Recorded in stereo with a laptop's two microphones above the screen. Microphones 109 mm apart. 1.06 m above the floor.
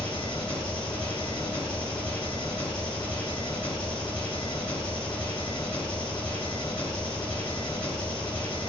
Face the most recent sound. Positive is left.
turn(degrees=50)  # may be behind; listen again after turning